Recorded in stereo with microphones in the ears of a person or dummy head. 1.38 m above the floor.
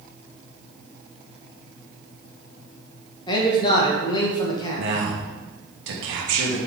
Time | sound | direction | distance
3.3 | a man speaking | 25° left (ahead or behind) | 1.1 m
4.8 | a man speaking | 60° right (ahead or behind) | 1.1 m